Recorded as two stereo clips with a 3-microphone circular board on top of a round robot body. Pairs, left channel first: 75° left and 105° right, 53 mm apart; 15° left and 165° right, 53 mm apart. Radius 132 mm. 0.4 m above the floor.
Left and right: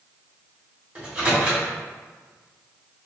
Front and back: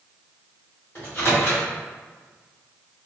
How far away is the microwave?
About 1.7 m.